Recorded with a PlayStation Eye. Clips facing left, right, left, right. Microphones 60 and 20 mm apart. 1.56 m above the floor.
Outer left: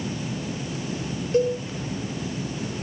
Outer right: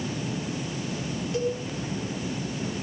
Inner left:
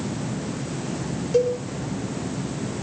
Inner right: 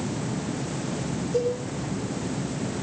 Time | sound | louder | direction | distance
1.3 | a cowbell | outer left 7 dB, inner left 5 dB | 45° left (ahead or behind) | 5.5 m